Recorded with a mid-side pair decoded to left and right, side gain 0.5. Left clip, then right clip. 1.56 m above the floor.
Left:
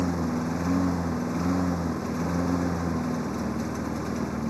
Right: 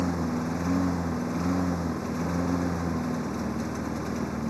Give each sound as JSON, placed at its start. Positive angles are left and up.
{"t": 0.0, "sound": "a lawn mower", "azimuth_deg": 10}